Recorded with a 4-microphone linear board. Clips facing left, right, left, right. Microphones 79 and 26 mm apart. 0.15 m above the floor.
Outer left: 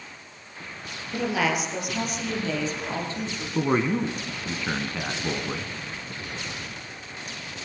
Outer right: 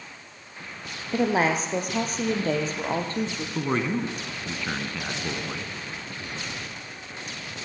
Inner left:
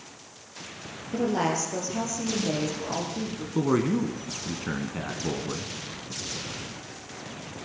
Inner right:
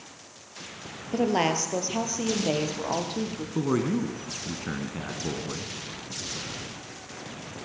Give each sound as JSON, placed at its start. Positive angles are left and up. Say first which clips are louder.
{"t": 1.1, "sound": "a woman speaking", "louder": "outer right 3 dB, inner right 2 dB", "side_deg": -30, "distance_m": 3.5}
{"t": 3.5, "sound": "a man speaking", "louder": "outer left 3 dB, inner left 2 dB", "side_deg": 10, "distance_m": 1.5}